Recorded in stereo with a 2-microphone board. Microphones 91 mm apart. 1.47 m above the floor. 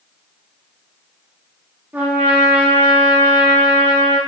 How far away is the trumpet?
About 1.3 m.